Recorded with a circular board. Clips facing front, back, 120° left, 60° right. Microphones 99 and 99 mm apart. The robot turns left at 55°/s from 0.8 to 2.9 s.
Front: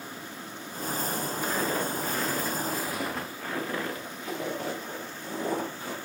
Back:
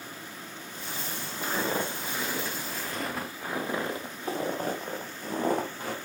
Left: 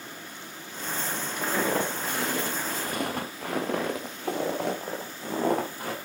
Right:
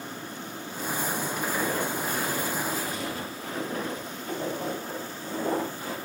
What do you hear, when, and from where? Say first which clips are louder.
1.4 s footsteps: back 1 dB, left 4 dB; 125° left, 3.5 m; by 6.0 s 150° left, 4.5 m